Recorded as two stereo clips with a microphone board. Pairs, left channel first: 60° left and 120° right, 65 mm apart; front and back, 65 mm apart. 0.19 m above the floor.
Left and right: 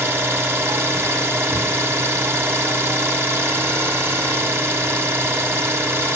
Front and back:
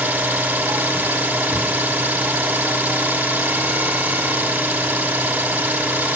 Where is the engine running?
130° right, 1.1 m.